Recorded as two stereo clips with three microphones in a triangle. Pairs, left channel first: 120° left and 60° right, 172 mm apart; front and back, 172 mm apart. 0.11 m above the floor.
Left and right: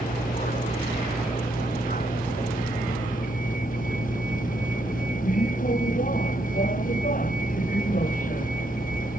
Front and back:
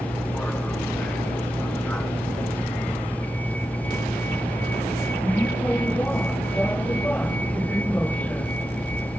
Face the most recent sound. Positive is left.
turn(degrees=80)